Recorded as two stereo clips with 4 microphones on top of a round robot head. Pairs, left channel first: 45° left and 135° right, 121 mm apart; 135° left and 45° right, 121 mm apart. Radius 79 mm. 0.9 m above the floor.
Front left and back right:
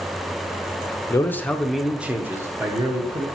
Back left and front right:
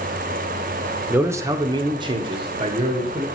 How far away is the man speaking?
About 0.7 m.